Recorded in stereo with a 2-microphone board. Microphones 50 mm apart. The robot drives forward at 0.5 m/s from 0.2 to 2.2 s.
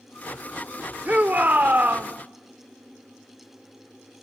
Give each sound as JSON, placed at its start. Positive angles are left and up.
{"t": 1.1, "sound": "a shout", "side_deg": -35, "distance_m": 1.0}